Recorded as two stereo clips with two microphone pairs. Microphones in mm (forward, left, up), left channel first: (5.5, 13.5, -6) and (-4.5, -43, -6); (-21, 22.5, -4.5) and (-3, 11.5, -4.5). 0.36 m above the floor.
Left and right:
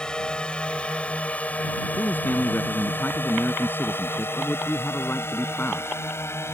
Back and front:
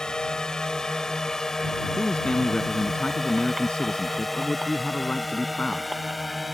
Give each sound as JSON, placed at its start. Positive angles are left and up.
{"t": 0.0, "sound": "a drone", "azimuth_deg": 150}
{"t": 2.0, "sound": "a man speaking", "azimuth_deg": 135}